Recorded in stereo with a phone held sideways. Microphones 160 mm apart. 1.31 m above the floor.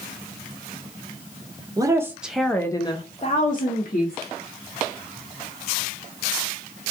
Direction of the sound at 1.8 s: 25° right (ahead or behind).